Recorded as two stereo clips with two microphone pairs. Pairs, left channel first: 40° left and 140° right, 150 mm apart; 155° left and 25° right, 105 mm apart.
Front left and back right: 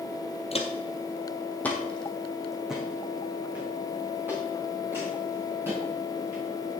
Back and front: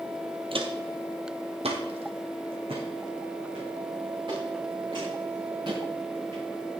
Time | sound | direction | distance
0.5 | footsteps | straight ahead | 1.7 m